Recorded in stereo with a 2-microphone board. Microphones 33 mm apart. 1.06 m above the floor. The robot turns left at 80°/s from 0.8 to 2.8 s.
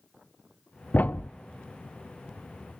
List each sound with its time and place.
0.9 s a thud: 55° left (ahead or behind), 0.5 m